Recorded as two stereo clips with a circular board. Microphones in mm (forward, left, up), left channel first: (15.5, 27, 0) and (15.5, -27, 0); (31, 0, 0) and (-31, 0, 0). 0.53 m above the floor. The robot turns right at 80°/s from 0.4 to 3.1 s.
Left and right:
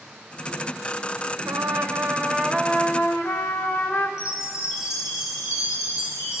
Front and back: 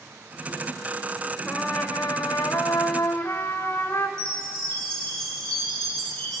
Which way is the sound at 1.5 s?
90° right.